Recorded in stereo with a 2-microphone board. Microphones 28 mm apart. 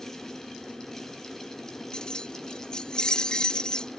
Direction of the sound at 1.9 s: 30° left (ahead or behind).